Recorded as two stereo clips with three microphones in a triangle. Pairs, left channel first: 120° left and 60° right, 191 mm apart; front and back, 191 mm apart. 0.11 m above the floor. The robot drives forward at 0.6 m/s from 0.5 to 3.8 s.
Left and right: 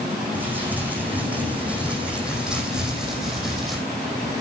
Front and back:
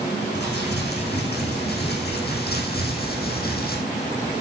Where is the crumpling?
20° left, 6.5 m; by 3.8 s 30° left, 4.5 m.